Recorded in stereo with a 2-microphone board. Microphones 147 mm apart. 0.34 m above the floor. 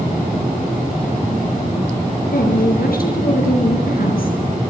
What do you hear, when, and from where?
2.3 s a woman speaking: 75° left (ahead or behind), 5 m